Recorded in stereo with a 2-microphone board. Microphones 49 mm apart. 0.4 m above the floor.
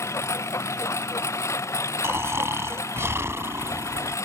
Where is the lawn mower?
70° left (ahead or behind); by 4.3 s 80° left.